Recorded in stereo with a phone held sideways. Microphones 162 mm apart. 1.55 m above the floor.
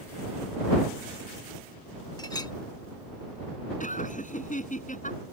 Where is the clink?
25° left (ahead or behind).